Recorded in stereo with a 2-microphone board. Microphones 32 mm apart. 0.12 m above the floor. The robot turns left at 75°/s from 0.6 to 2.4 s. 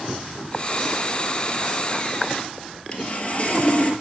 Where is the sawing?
35° left (ahead or behind), 1.5 m.